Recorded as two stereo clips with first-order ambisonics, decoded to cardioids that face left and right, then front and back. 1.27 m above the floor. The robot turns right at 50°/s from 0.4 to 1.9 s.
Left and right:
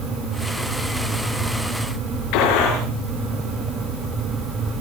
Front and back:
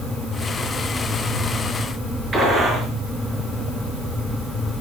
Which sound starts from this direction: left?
A gunshot, at 2.3 s.